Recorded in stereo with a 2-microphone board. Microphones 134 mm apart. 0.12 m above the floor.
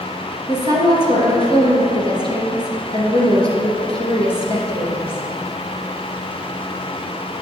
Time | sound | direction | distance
0.5 | a woman speaking | 45° left (ahead or behind) | 2.5 m